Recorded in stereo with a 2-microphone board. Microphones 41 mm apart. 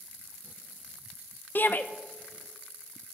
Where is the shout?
45° left (ahead or behind), 0.9 m.